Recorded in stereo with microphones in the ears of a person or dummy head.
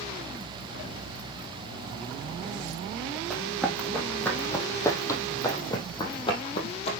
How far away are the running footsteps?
About 3.5 m.